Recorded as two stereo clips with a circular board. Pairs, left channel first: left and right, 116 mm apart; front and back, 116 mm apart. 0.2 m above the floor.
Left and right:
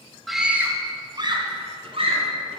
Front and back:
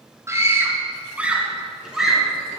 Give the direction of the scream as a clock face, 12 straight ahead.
6 o'clock.